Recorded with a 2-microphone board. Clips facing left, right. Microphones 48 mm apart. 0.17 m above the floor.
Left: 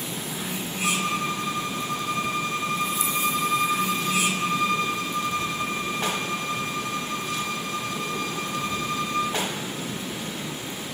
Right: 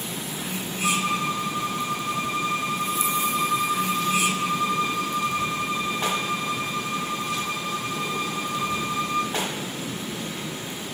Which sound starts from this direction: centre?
A violin, at 0.8 s.